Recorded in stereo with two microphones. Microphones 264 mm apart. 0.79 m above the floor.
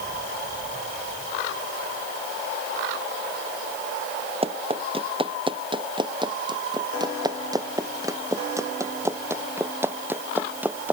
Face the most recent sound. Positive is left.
turn(degrees=-5)  # may be behind; listen again after turning